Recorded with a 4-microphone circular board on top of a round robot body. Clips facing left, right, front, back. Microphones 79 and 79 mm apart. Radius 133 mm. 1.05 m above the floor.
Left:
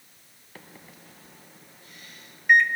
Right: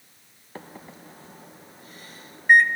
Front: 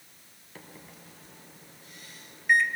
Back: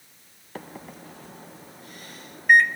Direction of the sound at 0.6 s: 145° right.